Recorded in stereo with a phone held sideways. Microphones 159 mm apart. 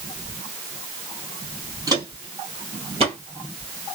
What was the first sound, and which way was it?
Footsteps, 20° right (ahead or behind).